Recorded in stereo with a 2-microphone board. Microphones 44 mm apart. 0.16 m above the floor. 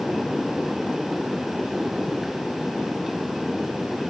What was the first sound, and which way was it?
Only background noise.